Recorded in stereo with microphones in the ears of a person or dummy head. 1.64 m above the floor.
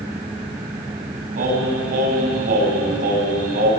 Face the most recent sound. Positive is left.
turn(degrees=-50)  # may be behind; listen again after turning